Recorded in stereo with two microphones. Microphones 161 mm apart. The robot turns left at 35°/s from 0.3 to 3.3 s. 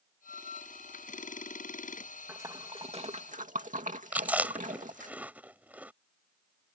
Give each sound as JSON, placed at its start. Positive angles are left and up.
{"t": 2.3, "sound": "a splash", "side_deg": -15}
{"t": 4.1, "sound": "chewing", "side_deg": -10}